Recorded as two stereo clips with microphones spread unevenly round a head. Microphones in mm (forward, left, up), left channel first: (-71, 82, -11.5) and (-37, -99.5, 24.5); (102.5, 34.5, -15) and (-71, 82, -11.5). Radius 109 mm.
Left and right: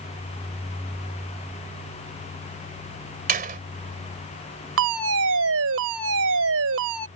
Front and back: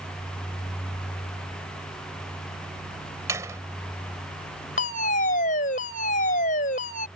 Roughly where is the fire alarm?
Right.